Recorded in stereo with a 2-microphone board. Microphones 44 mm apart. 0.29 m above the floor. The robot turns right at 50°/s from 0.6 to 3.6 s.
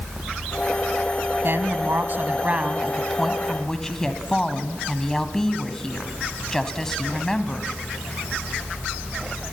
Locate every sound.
1.4 s a woman speaking: 95° right, 1.8 m; by 7.7 s 15° left, 1.8 m